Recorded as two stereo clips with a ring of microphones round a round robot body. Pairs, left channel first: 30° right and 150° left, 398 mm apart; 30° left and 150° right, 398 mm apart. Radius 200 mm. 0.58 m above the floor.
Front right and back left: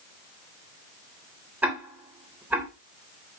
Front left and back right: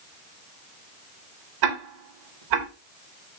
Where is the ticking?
125° right, 3 m.